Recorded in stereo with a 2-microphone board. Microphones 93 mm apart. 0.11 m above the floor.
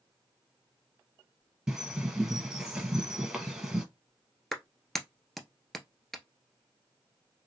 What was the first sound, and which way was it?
A bird, 10° right (ahead or behind).